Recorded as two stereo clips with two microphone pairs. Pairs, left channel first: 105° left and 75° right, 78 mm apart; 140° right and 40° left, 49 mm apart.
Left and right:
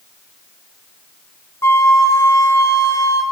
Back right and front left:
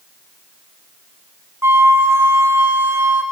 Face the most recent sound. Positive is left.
turn(degrees=55)